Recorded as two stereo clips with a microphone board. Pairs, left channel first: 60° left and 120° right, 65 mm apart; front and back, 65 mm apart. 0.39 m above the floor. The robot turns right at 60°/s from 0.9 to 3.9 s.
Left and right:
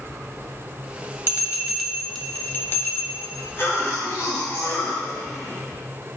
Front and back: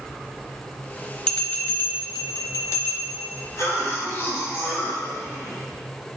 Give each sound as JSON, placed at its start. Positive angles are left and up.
{"t": 1.3, "sound": "a bell", "azimuth_deg": -75, "distance_m": 1.3}
{"t": 3.6, "sound": "a cough", "azimuth_deg": 20, "distance_m": 3.5}